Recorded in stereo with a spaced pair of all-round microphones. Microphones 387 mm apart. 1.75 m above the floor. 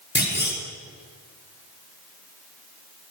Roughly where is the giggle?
No giggle in this recording.